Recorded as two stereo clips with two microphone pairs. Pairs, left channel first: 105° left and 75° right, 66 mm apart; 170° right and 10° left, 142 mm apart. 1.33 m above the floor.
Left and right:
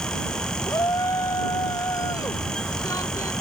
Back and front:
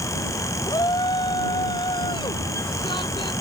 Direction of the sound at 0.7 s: 135° left.